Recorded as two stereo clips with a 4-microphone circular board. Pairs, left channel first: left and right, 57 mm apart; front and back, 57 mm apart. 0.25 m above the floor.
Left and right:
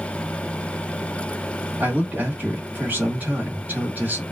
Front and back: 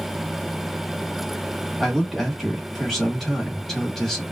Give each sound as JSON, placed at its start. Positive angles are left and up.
{"t": 1.8, "sound": "a man speaking", "azimuth_deg": -85, "distance_m": 1.7}